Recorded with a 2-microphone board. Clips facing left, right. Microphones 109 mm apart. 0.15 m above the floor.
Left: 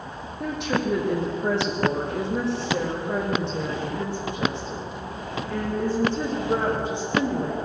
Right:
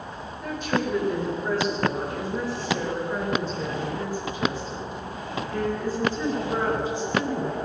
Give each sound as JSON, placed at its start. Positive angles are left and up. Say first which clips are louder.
{"t": 0.4, "sound": "a woman speaking", "louder": "left 1 dB", "side_deg": 75, "distance_m": 7.5}